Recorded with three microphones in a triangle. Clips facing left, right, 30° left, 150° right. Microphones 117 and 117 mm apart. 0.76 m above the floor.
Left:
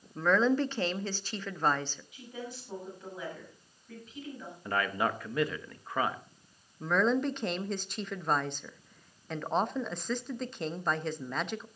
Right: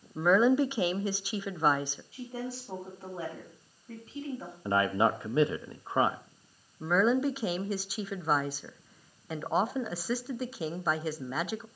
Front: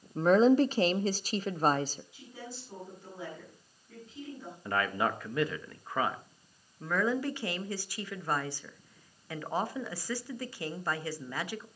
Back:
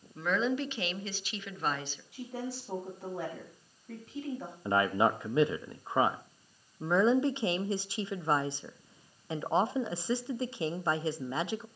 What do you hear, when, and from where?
0.1 s a woman speaking: 15° right, 0.7 m
2.1 s a woman speaking: 145° right, 6 m
4.7 s a man speaking: 115° right, 0.7 m
6.8 s a woman speaking: 165° right, 0.7 m